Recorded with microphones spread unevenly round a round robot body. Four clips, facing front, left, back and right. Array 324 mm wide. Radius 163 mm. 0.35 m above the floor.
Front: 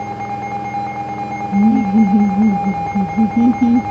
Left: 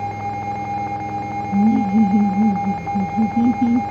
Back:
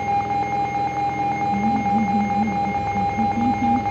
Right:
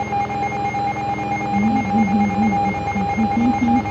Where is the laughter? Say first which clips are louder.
Left 3 dB, front 11 dB; 10° left; by 3.8 s straight ahead.